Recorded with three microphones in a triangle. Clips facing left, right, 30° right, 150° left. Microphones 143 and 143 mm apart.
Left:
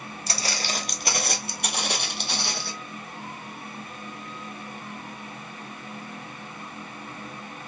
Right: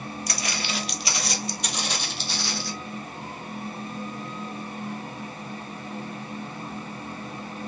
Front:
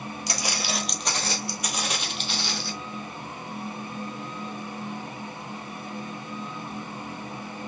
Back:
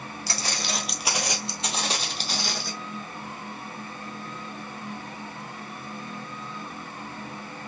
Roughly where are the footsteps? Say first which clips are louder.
Left 3 dB, front 1 dB; ahead left.